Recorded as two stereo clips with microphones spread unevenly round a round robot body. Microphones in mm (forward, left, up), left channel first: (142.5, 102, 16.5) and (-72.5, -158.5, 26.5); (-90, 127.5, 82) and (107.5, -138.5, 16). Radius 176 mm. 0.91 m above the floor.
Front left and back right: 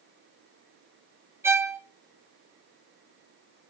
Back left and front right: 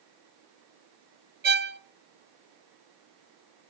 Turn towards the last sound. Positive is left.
turn(degrees=-50)